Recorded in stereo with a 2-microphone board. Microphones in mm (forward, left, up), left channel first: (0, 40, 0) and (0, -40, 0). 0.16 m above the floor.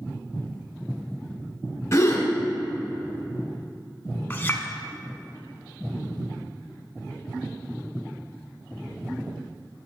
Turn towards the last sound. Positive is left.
turn(degrees=25)  # may be behind; listen again after turning